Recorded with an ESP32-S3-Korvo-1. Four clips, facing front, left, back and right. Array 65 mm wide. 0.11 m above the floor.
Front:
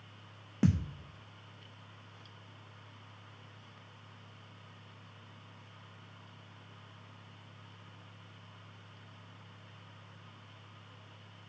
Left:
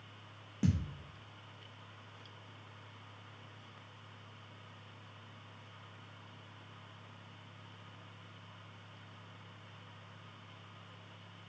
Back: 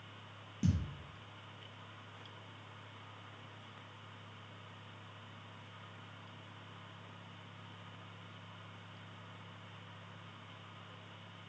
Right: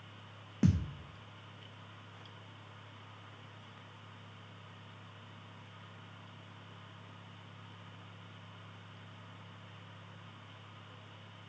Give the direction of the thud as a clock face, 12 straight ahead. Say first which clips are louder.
Right 3 dB, front 6 dB; 1 o'clock.